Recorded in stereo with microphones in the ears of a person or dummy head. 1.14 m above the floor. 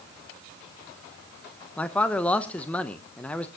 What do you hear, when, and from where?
1.8 s a man speaking: 10° left (ahead or behind), 0.7 m